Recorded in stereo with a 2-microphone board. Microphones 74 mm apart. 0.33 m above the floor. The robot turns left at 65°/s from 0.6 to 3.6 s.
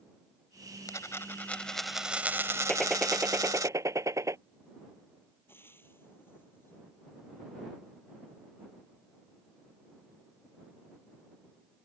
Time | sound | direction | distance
0.9 | a dropped coin | 65° left | ?
2.7 | a gunshot | 15° left | ?
5.5 | frying | 30° left (ahead or behind) | ?